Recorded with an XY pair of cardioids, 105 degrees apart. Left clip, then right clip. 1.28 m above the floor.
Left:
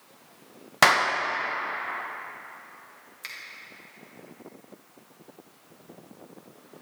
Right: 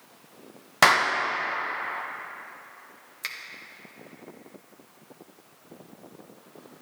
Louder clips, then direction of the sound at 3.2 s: Right 5 dB; 35° right.